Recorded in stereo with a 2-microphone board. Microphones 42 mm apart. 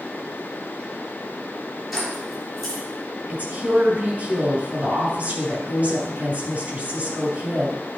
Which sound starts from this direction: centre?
Keys jangling, at 1.9 s.